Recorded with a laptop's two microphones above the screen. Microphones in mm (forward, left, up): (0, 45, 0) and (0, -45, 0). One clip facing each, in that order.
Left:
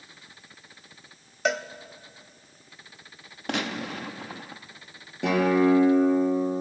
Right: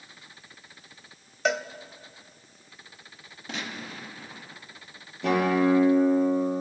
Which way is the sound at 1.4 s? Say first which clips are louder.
Even; centre (ahead or behind).